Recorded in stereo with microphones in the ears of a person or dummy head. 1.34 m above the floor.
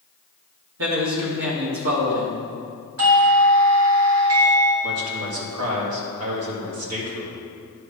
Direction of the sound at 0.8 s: 70° right (ahead or behind).